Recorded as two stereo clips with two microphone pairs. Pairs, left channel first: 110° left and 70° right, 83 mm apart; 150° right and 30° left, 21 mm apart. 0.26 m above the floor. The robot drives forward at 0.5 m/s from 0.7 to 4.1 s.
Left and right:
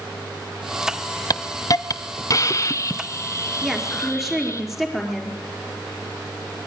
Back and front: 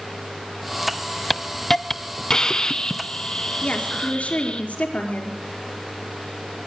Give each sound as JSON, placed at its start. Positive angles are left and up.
{"t": 1.3, "sound": "a hiss", "azimuth_deg": 130, "distance_m": 0.8}
{"t": 3.6, "sound": "a woman speaking", "azimuth_deg": -155, "distance_m": 4.0}